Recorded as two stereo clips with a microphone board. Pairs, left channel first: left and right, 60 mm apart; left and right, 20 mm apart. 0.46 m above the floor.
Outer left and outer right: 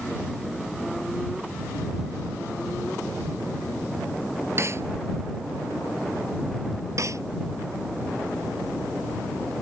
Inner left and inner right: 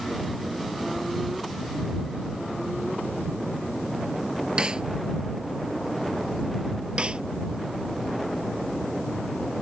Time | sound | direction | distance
4.6 | a snare drum | 50° right (ahead or behind) | ?
7.0 | a snare drum | 60° right (ahead or behind) | ?